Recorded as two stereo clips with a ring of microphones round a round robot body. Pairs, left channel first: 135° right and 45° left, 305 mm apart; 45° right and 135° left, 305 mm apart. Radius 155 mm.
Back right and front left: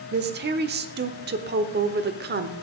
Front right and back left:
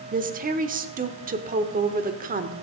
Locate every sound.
0.1 s a woman speaking: 85° left, 1.0 m